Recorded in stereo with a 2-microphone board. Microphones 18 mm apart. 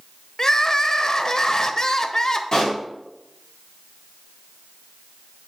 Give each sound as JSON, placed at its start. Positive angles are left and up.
{"t": 0.4, "sound": "crying", "side_deg": 30, "distance_m": 0.5}
{"t": 2.5, "sound": "a pop", "side_deg": 40, "distance_m": 3.5}